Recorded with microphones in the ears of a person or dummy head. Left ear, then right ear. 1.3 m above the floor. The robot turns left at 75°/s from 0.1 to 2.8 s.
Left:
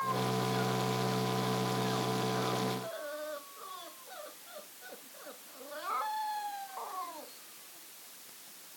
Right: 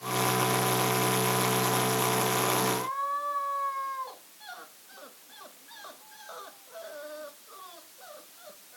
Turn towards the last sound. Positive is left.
No sound to turn to.